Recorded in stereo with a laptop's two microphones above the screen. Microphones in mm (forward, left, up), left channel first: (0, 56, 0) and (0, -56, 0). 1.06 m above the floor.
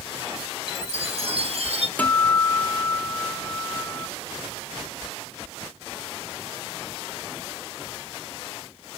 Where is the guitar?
15° left (ahead or behind), 0.8 m.